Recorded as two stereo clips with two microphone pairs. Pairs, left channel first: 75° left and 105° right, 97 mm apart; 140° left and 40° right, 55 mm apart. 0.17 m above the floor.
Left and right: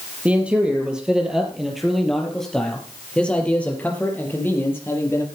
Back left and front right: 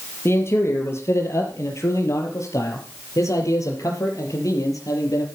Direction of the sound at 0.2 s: Straight behind.